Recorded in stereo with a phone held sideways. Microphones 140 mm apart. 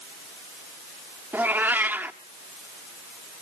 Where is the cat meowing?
10° right (ahead or behind), 0.9 m.